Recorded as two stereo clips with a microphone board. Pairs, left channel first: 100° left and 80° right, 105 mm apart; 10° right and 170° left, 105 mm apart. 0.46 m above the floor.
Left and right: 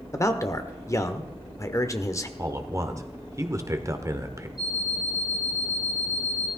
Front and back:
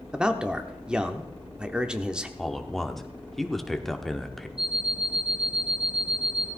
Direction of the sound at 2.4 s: 95° right.